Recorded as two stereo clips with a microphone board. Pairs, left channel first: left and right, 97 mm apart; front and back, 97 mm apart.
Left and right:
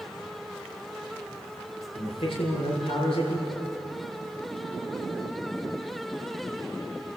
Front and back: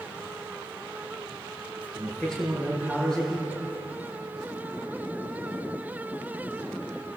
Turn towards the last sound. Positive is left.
turn(degrees=85)